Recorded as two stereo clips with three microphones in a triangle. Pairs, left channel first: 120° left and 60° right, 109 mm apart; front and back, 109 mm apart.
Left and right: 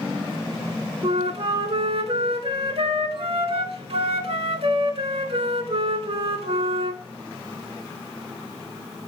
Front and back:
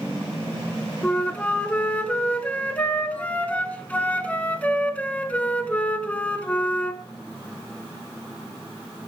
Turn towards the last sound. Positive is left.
turn(degrees=-75)